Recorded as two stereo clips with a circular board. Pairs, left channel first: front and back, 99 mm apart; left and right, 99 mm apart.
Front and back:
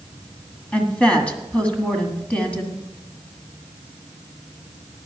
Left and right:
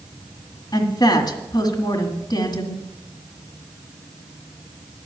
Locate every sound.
0.7 s a woman speaking: 75° left, 1.8 m